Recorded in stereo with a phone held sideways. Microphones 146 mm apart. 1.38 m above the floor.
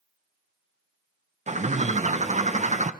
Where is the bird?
50° right (ahead or behind), 0.6 m.